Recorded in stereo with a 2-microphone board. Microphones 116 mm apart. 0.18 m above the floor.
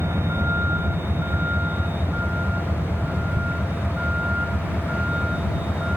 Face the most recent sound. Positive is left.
turn(degrees=-10)  # may be behind; listen again after turning